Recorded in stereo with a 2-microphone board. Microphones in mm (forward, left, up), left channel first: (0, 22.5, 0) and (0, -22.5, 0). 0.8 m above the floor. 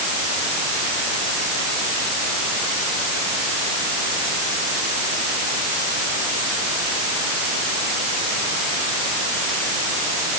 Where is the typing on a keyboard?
I don't hear typing on a keyboard.